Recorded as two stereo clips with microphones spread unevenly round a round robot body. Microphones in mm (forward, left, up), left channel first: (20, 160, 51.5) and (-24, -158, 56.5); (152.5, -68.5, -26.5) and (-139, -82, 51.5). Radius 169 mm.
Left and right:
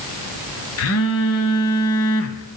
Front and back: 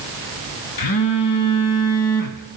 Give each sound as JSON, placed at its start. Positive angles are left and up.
{"t": 0.8, "sound": "a phone buzzing", "azimuth_deg": 30, "distance_m": 0.9}